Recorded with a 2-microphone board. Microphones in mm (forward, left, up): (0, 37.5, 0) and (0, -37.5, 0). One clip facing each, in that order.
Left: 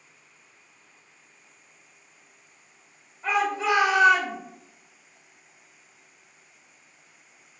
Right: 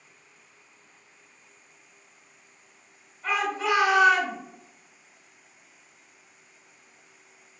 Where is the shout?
35° left (ahead or behind), 1.6 m.